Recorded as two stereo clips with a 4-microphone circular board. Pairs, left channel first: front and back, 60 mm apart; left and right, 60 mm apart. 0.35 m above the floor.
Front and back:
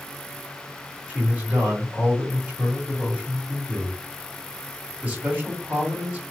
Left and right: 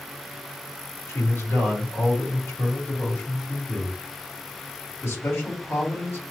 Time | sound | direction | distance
1.1 | a man speaking | 115° left | 2 m